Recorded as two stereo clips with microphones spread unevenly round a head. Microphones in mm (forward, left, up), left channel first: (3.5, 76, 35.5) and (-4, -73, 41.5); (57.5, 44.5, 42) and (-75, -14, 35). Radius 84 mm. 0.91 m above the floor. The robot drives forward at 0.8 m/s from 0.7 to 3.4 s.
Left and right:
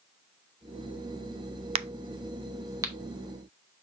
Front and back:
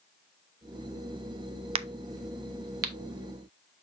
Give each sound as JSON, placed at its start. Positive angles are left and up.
{"t": 1.8, "sound": "a crack", "azimuth_deg": -130, "distance_m": 0.6}